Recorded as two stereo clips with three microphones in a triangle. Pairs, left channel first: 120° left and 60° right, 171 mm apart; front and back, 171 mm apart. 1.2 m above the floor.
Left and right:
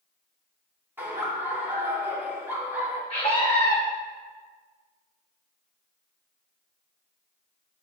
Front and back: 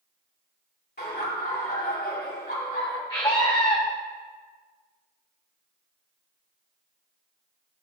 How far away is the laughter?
About 2.5 m.